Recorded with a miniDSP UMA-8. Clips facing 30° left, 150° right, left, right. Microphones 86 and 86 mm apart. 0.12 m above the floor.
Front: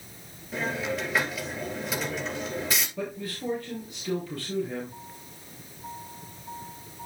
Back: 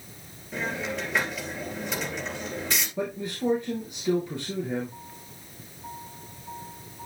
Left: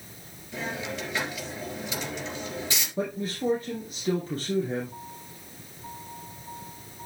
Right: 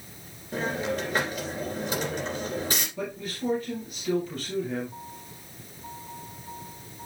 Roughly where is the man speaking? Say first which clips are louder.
Back 4 dB, left 3 dB; behind left.